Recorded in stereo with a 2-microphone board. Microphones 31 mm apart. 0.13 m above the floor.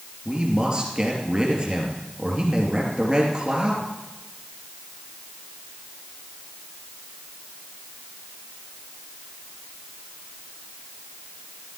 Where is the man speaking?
30° right (ahead or behind), 3 m.